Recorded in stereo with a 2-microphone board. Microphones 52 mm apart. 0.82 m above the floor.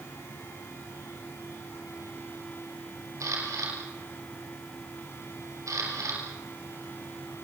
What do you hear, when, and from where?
3.2 s a camera shutter: 85° right, 6.5 m